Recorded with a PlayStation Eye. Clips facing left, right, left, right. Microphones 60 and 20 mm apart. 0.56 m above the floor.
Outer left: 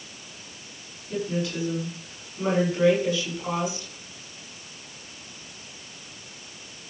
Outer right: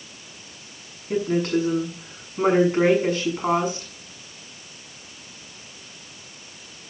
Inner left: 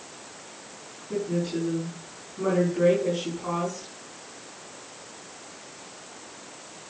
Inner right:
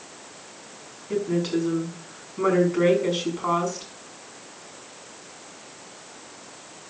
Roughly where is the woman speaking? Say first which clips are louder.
Outer right 7 dB, inner right 4 dB; right.